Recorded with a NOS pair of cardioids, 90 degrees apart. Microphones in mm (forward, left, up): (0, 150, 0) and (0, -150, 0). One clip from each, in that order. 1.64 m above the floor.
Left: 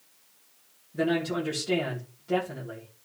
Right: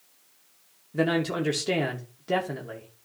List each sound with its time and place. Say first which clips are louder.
0.9 s a man speaking: right 2 dB; 55° right, 2.5 m